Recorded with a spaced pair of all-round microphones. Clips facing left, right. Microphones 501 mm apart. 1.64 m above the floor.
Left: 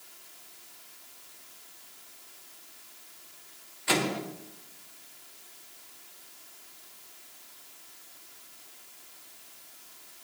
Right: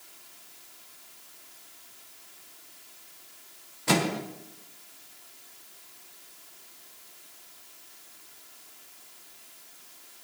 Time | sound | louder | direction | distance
3.9 | a microwave | right 3 dB | 65° right (ahead or behind) | 1.4 m